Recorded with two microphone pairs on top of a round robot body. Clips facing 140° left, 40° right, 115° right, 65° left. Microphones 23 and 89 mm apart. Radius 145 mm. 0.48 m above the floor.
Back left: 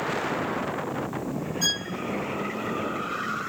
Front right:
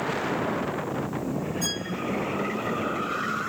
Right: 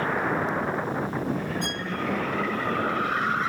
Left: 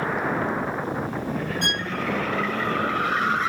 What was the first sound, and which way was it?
A violin, 90° left.